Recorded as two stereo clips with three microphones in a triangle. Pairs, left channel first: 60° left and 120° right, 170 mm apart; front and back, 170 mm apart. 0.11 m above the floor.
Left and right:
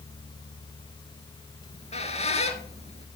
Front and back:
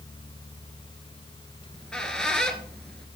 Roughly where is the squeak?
Left.